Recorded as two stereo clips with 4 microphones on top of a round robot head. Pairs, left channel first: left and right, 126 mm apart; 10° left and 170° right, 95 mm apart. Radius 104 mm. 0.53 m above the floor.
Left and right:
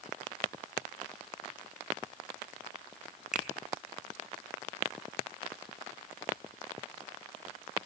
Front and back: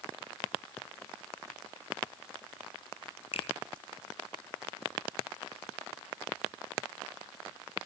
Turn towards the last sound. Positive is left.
turn(degrees=-5)